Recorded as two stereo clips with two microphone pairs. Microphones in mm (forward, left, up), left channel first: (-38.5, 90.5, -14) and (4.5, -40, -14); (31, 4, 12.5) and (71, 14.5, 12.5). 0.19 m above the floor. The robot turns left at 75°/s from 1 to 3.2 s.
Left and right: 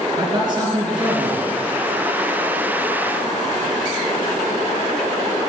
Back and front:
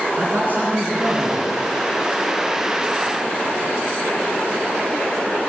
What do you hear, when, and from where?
0.2 s a man speaking: 15° right, 3 m; by 1.4 s 50° right, 3 m